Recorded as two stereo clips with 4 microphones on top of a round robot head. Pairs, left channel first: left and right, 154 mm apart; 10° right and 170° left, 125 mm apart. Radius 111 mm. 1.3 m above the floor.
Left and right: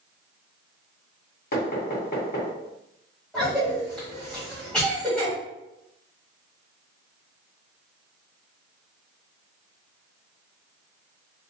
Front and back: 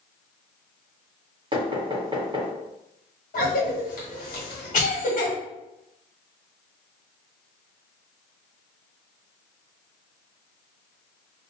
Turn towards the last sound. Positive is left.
turn(degrees=0)